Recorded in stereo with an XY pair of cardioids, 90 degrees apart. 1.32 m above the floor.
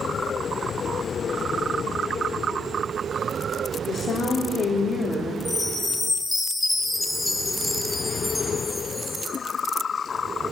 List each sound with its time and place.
3.9 s a woman speaking: 55° left, 4 m
5.5 s a chime: 20° left, 8 m